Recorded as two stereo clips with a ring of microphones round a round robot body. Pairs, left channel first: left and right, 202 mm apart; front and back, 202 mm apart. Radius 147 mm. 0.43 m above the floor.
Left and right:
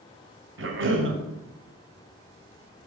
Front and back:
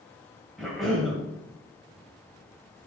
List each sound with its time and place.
0.6 s a cough: 90° right, 2 m